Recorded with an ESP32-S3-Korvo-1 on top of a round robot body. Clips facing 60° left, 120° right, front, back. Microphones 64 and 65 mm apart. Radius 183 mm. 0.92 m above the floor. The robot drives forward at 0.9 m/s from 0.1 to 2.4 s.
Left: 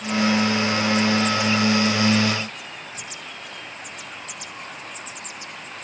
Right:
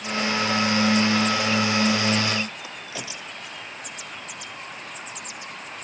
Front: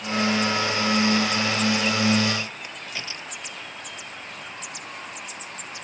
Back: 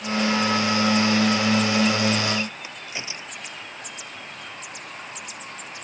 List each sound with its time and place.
2.6 s a crack: 105° right